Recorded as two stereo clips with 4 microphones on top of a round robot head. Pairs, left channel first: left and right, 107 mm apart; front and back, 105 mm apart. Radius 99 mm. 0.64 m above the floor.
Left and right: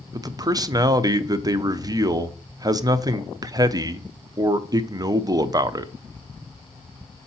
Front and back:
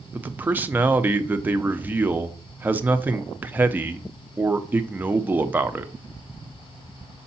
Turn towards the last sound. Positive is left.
turn(degrees=-120)